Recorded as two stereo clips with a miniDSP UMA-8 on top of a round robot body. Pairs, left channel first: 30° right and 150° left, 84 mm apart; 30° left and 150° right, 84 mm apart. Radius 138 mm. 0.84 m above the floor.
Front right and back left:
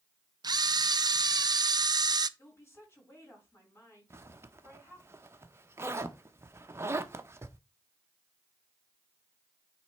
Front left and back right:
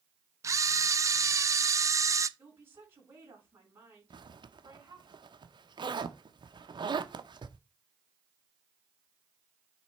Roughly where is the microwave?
No microwave in this recording.